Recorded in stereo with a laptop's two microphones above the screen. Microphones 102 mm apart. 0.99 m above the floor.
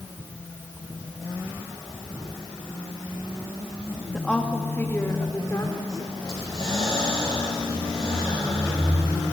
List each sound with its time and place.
4.1 s a woman speaking: 5° left (ahead or behind), 2.0 m; by 6.1 s 35° left (ahead or behind), 4.5 m
6.2 s breathing: 35° left (ahead or behind), 5 m